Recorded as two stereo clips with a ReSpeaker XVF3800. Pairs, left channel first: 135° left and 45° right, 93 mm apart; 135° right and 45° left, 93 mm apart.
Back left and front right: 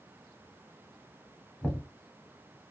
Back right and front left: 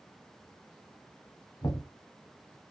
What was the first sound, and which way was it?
Knocking, 150° right.